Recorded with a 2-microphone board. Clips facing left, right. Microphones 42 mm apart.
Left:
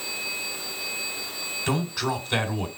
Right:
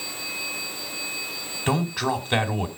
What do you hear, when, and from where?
1.7 s a man speaking: 30° right (ahead or behind), 2 m